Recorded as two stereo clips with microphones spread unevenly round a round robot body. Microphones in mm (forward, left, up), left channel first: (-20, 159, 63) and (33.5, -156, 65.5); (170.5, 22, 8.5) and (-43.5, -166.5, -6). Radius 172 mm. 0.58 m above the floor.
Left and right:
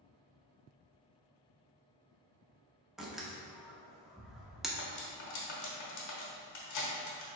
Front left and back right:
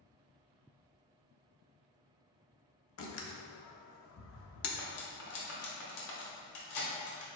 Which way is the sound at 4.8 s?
60° left.